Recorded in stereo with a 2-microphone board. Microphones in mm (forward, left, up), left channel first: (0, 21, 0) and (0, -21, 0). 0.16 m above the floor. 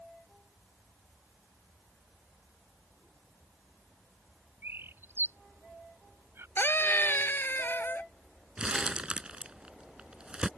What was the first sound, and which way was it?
A bird, 65° right (ahead or behind).